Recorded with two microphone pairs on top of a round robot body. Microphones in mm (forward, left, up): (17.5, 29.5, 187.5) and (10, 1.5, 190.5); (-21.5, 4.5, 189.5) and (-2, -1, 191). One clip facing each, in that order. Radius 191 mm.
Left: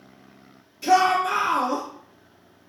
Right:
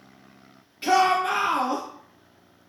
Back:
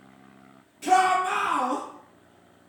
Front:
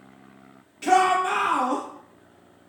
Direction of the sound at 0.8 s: 70° right.